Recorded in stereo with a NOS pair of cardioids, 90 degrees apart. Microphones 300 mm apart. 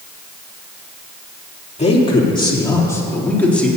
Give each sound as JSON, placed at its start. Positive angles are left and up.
{"t": 1.8, "sound": "a man speaking", "azimuth_deg": 20, "distance_m": 3.0}